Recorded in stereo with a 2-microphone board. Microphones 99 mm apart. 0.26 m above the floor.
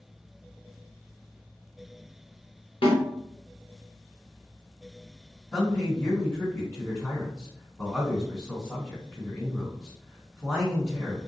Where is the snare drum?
70° left (ahead or behind), 1.3 m.